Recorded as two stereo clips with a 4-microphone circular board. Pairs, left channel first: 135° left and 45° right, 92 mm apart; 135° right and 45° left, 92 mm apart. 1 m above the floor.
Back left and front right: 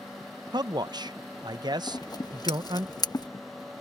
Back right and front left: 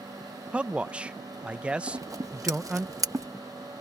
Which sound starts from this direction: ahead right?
A man speaking, at 0.5 s.